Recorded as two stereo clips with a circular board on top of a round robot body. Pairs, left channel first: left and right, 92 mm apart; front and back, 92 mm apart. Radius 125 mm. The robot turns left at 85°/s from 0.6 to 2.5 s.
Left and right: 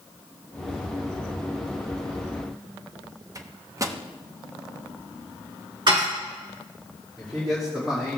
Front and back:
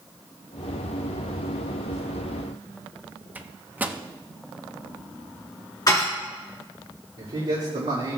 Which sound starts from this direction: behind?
A man speaking, at 7.2 s.